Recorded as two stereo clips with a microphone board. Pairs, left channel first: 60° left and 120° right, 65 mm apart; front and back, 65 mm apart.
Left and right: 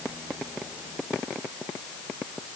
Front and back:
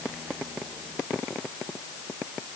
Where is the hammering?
No hammering in this recording.